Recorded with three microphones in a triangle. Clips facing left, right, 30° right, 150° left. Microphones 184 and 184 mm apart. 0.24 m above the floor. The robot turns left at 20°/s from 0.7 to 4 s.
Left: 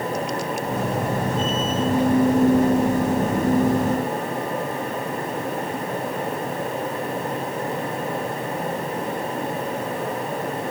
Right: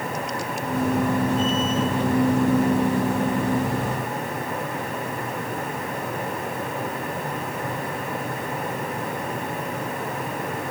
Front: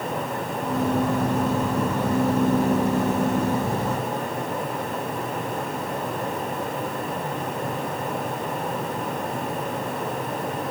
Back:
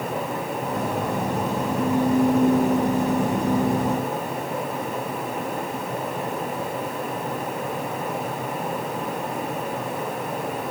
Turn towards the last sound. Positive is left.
No sound to turn to.